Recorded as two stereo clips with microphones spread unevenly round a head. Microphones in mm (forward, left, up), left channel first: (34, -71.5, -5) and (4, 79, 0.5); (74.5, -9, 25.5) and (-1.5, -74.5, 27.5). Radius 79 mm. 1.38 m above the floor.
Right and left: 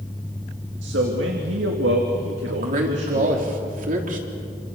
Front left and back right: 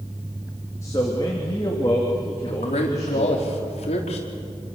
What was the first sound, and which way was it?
A man speaking, 110° left.